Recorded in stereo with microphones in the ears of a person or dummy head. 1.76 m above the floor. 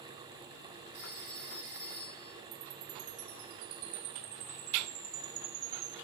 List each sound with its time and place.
0.9 s a phone ringing: 20° right (ahead or behind), 7.5 m
2.5 s a chime: 85° right, 1.4 m